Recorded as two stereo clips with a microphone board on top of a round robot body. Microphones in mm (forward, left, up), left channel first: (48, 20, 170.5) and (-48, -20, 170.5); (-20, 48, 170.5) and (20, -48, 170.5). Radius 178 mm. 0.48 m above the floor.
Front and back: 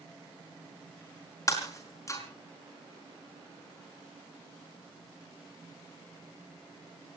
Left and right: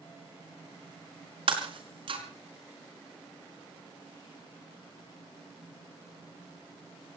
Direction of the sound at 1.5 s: 35° right.